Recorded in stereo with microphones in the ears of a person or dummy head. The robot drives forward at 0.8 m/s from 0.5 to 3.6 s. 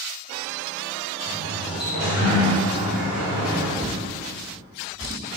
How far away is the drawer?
About 0.9 m.